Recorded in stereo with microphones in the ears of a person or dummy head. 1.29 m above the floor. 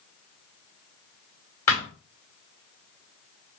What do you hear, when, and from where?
1.7 s a thud: 20° left (ahead or behind), 2 m